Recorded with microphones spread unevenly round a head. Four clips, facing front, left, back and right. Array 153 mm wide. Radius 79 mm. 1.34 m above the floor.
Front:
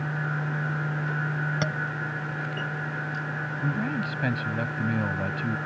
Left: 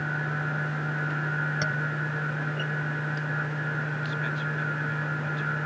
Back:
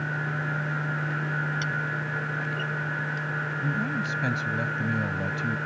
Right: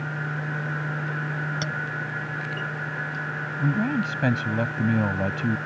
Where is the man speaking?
85° right.